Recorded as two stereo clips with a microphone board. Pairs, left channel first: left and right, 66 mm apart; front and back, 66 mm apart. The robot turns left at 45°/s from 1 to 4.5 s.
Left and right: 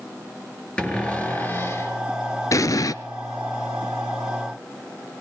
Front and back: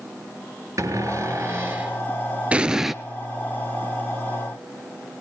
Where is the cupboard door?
160° left, 3 m; by 2.0 s 115° left, 3 m.